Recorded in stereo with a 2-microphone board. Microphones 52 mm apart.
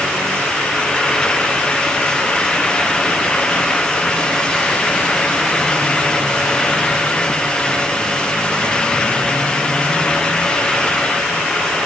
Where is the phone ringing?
I don't hear a phone ringing.